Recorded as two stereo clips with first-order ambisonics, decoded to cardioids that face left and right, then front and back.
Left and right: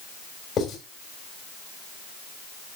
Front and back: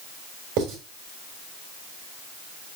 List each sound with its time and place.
0.6 s writing: 155° left, 4 m